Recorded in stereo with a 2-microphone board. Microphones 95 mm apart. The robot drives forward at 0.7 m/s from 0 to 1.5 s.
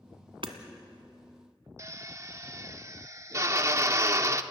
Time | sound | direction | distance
0.4 | hammering | 65° right (ahead or behind) | 1.7 m
1.8 | a drill | 30° right (ahead or behind) | 0.8 m